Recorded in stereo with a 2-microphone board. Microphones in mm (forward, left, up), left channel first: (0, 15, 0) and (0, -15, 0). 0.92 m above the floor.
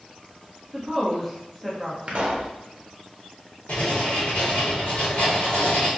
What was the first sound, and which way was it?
A woman speaking, centre (ahead or behind).